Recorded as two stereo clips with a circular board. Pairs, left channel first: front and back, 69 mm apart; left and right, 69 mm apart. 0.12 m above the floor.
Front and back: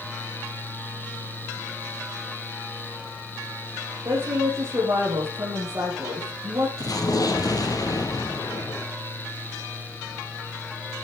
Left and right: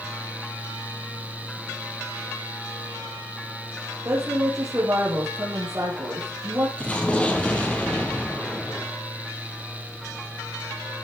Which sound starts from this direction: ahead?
An explosion, at 6.8 s.